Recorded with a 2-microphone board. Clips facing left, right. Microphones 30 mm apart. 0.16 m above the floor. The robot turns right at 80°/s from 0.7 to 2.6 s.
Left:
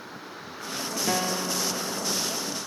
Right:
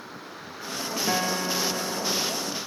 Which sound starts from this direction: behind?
A guitar, at 1.1 s.